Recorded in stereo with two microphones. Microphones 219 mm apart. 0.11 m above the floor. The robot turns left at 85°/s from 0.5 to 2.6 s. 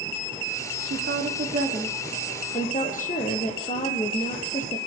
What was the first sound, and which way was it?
A woman speaking, 65° right.